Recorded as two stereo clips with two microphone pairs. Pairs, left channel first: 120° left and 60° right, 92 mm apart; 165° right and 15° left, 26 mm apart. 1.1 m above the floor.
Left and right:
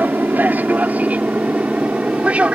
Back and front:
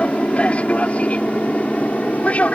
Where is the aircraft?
130° right; by 2.6 s 135° right.